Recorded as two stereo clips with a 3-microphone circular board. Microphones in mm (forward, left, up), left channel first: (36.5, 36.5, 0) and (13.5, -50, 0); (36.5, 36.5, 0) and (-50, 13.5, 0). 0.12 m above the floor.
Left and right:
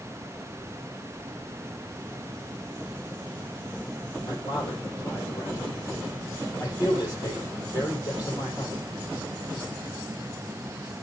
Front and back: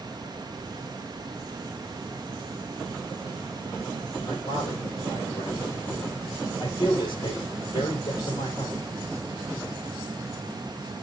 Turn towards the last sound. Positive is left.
turn(degrees=30)